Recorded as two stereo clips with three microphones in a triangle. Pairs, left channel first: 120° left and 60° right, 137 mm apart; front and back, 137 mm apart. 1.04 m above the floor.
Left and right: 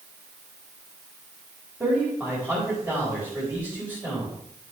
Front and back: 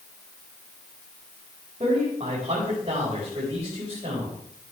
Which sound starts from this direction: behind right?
A man speaking, at 1.8 s.